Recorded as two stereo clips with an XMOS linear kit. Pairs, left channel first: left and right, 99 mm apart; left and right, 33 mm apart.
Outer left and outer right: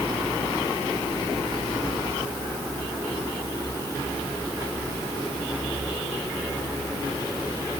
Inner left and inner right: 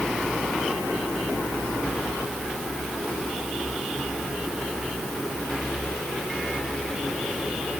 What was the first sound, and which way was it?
Only background noise.